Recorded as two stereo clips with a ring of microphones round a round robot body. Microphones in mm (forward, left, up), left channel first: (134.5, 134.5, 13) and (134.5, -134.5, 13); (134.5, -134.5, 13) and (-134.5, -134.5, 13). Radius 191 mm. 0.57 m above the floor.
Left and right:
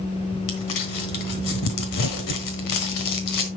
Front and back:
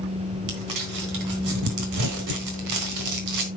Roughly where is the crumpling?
Behind left.